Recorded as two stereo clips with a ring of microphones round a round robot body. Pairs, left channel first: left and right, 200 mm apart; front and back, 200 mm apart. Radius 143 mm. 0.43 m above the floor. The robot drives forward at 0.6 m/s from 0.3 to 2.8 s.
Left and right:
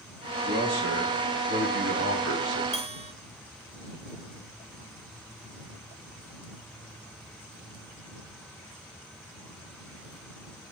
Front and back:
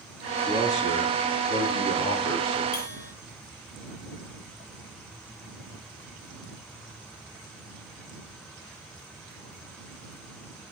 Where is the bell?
35° right, 2.5 m.